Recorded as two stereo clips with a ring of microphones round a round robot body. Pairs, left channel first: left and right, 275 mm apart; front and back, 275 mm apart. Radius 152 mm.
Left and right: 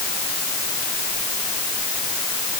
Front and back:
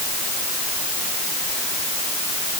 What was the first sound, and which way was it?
Only background noise.